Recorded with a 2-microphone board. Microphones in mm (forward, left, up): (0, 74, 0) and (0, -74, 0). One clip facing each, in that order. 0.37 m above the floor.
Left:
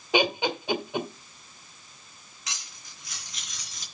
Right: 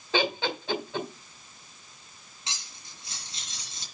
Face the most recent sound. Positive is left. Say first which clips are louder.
# even
turn(degrees=-30)  # may be behind; listen again after turning